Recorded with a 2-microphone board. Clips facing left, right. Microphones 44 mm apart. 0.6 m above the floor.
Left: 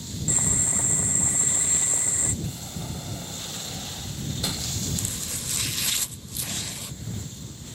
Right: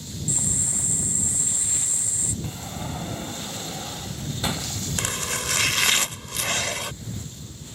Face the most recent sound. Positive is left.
turn(degrees=-70)  # may be behind; listen again after turning